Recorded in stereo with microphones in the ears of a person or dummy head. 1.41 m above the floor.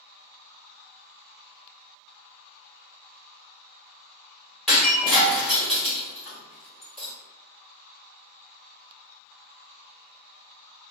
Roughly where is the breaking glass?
Centre.